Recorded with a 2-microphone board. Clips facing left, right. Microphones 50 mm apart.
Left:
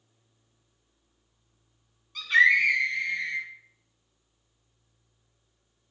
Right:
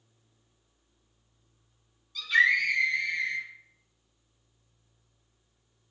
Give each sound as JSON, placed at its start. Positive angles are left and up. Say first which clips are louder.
{"t": 2.1, "sound": "a scream", "louder": "left 3 dB", "side_deg": 50, "distance_m": 2.5}